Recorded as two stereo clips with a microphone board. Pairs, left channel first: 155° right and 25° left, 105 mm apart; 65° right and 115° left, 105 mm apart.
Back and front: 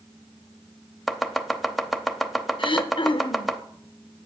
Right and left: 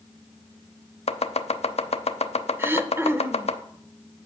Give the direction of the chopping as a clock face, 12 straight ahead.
2 o'clock.